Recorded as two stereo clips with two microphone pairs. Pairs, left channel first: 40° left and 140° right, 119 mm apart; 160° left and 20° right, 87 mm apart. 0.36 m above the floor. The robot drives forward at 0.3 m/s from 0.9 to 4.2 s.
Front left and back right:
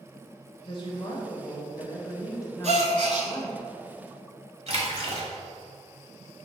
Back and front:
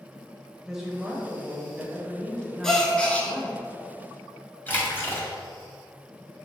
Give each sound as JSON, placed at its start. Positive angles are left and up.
{"t": 0.7, "sound": "a woman speaking", "azimuth_deg": 55, "distance_m": 1.5}
{"t": 2.6, "sound": "a gasp", "azimuth_deg": -120, "distance_m": 0.8}
{"t": 4.7, "sound": "a splash", "azimuth_deg": -140, "distance_m": 1.3}